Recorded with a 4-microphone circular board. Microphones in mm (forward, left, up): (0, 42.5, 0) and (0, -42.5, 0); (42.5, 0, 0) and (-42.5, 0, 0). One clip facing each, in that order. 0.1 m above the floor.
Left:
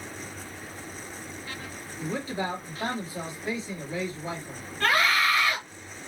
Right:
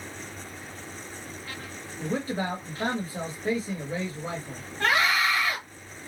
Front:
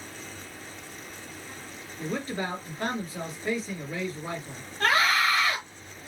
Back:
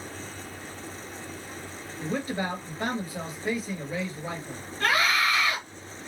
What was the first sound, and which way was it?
A man speaking, 110° right.